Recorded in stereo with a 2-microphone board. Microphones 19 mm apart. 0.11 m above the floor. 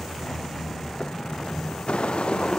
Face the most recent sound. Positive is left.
turn(degrees=85)